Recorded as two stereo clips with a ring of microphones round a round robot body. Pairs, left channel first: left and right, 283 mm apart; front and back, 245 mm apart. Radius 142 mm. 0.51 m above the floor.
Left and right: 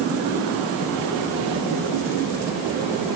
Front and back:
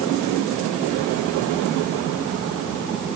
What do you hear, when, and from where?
Only background noise.